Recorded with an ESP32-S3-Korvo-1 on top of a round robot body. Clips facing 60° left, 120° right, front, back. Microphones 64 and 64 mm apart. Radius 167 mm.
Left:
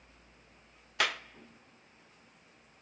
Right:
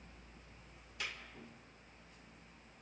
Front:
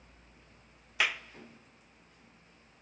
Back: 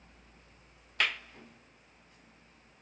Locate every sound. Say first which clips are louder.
1.0 s a clap: left 14 dB, front 1 dB; 85° left, 0.5 m